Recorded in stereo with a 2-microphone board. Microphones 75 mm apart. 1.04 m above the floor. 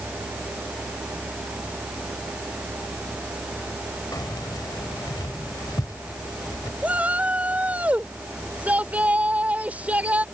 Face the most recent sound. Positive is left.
turn(degrees=-20)  # may be behind; listen again after turning